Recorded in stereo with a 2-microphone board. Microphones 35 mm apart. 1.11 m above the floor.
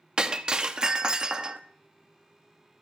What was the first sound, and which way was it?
Breaking glass, 25° right (ahead or behind).